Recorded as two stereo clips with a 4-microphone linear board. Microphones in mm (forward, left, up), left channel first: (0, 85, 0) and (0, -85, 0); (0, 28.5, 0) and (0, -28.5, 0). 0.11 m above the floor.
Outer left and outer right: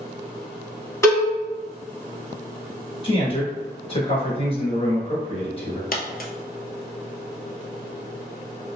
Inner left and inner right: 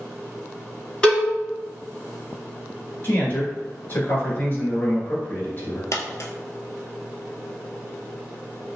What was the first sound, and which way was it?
A cowbell, 15° left (ahead or behind).